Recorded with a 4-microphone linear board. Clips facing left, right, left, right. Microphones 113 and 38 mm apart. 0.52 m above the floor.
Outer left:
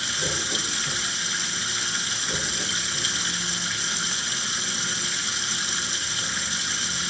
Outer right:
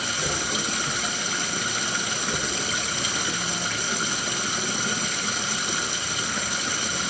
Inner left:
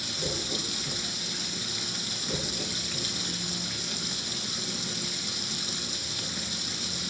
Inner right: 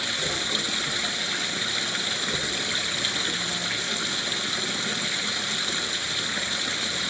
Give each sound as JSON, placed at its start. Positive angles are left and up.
{"t": 0.0, "sound": "running water", "side_deg": -60, "distance_m": 0.9}